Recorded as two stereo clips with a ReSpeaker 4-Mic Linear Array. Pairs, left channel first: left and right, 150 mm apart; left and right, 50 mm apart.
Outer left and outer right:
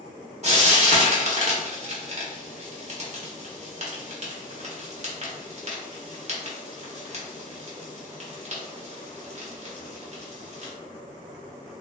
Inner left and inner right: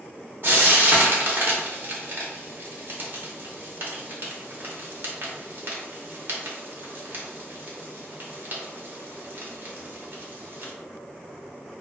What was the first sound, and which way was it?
Frying, 50° right (ahead or behind).